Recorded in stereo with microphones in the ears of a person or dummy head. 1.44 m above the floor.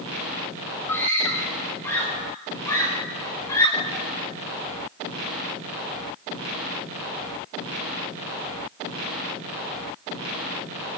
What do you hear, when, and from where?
0.9 s a scream: 15° left (ahead or behind), 4.5 m; by 4.0 s 20° left (ahead or behind), 6 m